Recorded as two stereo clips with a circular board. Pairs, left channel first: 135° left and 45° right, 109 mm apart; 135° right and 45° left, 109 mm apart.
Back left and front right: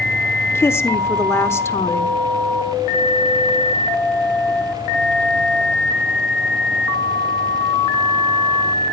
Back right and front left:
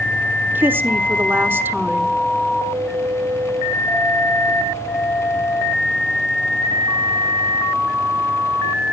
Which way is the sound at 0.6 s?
95° left.